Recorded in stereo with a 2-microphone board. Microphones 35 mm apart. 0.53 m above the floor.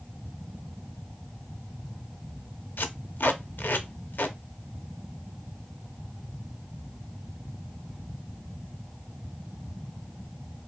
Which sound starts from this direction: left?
Tape being pulled, at 2.8 s.